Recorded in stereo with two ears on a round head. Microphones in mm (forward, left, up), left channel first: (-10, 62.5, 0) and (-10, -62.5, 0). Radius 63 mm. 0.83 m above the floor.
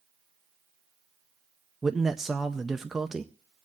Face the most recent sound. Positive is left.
turn(degrees=-5)  # may be behind; listen again after turning